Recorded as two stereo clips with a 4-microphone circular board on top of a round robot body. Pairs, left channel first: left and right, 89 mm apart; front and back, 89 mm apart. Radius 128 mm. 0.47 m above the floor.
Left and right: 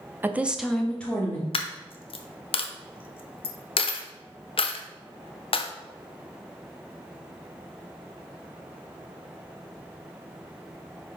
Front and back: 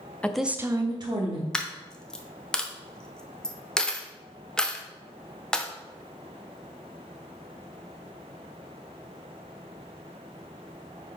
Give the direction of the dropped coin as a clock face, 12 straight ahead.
9 o'clock.